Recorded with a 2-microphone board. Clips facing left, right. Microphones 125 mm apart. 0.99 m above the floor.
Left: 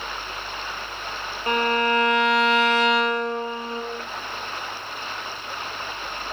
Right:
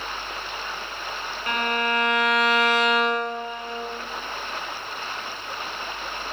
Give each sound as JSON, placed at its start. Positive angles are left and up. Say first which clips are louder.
{"t": 1.5, "sound": "a violin", "louder": "left 4 dB", "side_deg": 30, "distance_m": 0.7}